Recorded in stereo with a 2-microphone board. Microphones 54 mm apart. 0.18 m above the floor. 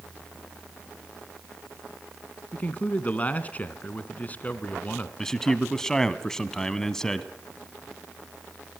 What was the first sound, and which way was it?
A man speaking, 30° left (ahead or behind).